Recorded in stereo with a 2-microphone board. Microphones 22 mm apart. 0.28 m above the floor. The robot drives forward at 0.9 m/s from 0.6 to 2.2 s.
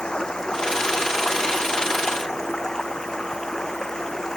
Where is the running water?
30° left (ahead or behind); by 4.4 s 25° left (ahead or behind).